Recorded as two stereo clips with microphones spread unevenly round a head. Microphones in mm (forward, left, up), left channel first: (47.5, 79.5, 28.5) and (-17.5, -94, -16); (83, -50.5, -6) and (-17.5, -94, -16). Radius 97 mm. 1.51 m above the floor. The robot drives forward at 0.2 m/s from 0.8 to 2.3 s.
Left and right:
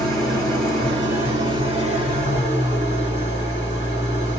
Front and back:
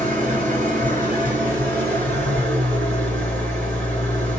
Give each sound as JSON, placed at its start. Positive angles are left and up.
{"t": 0.0, "sound": "an engine running", "azimuth_deg": 180, "distance_m": 1.8}